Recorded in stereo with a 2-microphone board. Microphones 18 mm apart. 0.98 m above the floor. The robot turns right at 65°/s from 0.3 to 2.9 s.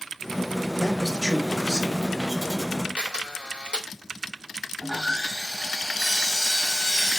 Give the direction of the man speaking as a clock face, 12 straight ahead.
7 o'clock.